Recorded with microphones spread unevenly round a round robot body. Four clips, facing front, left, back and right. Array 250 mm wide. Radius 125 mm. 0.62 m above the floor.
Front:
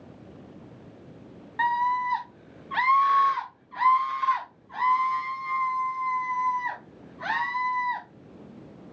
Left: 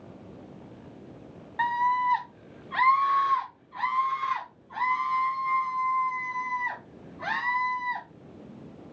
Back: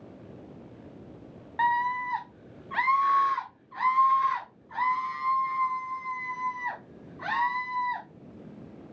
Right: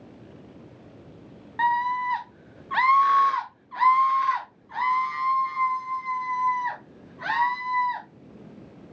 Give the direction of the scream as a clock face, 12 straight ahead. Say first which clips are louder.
Right 1 dB, front 2 dB; 6 o'clock.